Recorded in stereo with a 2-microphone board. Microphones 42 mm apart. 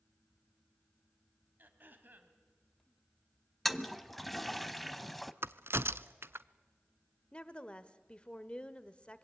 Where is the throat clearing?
50° right (ahead or behind), 2 m.